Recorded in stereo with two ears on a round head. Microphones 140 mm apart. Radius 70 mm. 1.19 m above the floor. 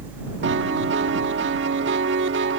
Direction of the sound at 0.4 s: 80° right.